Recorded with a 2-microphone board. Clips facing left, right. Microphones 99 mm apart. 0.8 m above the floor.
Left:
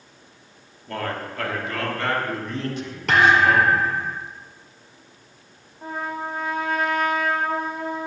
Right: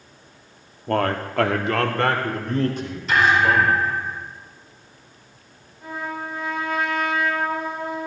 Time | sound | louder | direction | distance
0.9 | a man speaking | right 7 dB | 55° right (ahead or behind) | 1.3 m
3.1 | a thud | left 1 dB | 70° left (ahead or behind) | 3 m
5.8 | a trumpet | left 1 dB | 45° left (ahead or behind) | 2.5 m